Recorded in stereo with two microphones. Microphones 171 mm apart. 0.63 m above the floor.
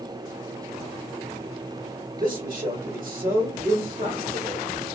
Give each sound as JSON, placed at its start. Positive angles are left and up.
{"t": 2.2, "sound": "a man speaking", "side_deg": -55, "distance_m": 1.7}